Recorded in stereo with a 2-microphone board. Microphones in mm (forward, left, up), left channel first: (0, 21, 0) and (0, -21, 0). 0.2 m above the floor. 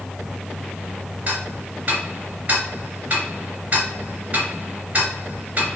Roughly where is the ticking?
Right.